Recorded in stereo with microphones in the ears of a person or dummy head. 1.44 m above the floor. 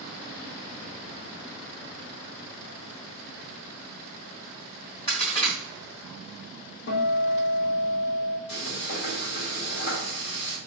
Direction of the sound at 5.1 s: 25° left (ahead or behind).